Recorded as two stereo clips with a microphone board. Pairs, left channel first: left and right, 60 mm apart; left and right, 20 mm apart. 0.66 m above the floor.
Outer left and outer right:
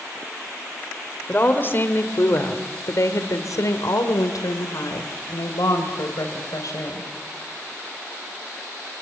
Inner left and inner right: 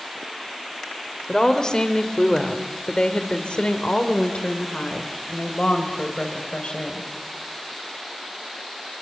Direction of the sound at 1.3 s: 30° left (ahead or behind).